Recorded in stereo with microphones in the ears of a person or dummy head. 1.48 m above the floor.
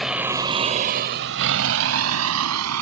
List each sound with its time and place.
0.0 s a vehicle: centre (ahead or behind); by 2.8 s 85° right